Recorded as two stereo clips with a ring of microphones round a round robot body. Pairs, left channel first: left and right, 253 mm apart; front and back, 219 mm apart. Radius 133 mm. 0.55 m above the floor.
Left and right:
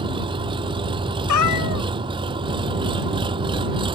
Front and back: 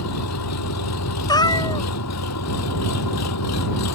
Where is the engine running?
20° right.